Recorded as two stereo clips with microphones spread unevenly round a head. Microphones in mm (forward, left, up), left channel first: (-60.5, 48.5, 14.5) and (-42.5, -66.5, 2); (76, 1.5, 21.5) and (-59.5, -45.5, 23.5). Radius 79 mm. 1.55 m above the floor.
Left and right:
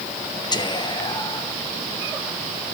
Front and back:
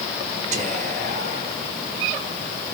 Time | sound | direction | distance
0.5 | whispering | 150° left | 1.3 m